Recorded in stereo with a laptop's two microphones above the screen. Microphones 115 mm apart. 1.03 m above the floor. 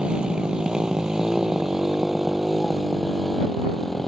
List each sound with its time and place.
0.0 s a motorcycle: 5° right (ahead or behind); by 4.1 s centre (ahead or behind)